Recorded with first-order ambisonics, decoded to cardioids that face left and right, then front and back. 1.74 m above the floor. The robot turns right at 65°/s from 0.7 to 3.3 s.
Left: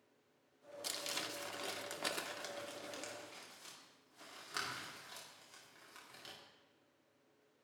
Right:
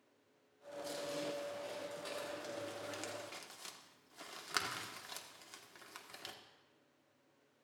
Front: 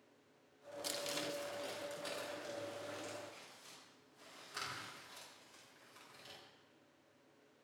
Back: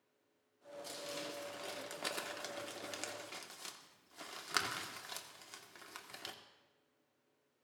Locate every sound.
0.8 s crumpling: 50° left, 1.7 m; by 6.3 s 150° right, 1.7 m